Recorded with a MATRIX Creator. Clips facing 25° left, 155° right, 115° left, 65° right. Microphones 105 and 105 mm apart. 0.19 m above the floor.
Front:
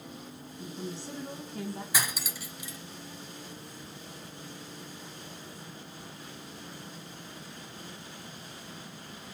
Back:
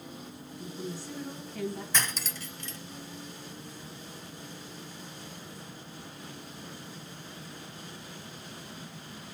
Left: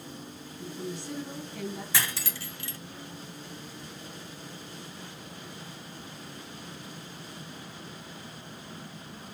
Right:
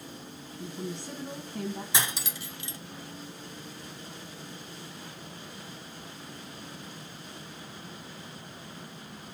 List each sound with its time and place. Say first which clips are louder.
0.6 s a woman speaking: even, even; 25° right, 1.7 m
1.9 s cutlery clinking: even, right 1 dB; 40° right, 0.6 m